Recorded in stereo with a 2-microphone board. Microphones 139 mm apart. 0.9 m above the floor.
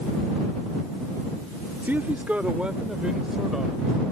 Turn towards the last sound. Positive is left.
turn(degrees=0)  # may be behind; listen again after turning